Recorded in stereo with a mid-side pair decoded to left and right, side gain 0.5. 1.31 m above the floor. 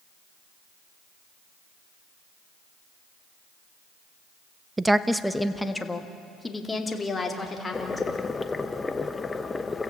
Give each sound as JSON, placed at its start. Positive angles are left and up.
{"t": 4.8, "sound": "a woman speaking", "azimuth_deg": -15, "distance_m": 0.8}
{"t": 7.7, "sound": "boiling", "azimuth_deg": 25, "distance_m": 1.1}